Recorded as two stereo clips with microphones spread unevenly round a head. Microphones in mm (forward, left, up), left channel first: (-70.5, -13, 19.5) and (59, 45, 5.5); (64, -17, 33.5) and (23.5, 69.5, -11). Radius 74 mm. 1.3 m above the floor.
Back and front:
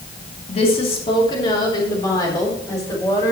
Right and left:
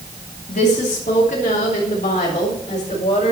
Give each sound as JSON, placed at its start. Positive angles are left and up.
{"t": 0.5, "sound": "a woman speaking", "azimuth_deg": -100, "distance_m": 2.5}